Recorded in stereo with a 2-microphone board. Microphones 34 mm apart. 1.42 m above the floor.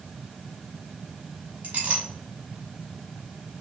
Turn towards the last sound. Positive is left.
turn(degrees=-45)  # may be behind; listen again after turning